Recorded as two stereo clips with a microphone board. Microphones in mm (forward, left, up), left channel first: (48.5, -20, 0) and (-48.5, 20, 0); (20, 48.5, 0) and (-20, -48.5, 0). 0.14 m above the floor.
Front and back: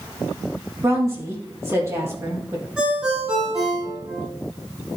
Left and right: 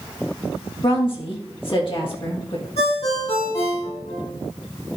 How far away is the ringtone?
About 4.5 m.